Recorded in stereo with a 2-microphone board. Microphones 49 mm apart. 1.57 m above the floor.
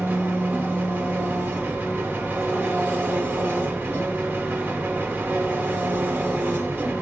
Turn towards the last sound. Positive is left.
turn(degrees=-40)  # may be behind; listen again after turning